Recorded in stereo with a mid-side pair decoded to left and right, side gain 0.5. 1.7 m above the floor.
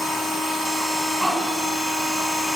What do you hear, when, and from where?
0.0 s a machine running: 10° right, 1.1 m